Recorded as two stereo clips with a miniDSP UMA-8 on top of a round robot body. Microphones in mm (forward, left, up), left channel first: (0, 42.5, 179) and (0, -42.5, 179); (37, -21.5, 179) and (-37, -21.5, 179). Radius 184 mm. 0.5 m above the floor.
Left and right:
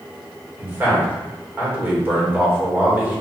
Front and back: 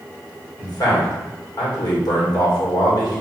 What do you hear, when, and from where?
0.6 s a man speaking: 25° right, 1.8 m